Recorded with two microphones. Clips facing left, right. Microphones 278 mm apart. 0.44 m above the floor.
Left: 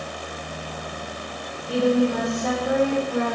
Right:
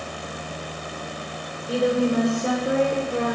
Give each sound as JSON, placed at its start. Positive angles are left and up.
{"t": 1.7, "sound": "a woman speaking", "side_deg": -25, "distance_m": 1.8}